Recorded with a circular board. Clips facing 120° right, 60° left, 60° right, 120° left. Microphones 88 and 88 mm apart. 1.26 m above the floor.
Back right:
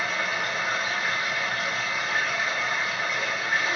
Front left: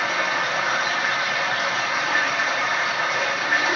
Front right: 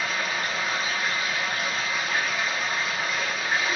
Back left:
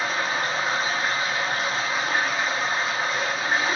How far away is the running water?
About 0.7 m.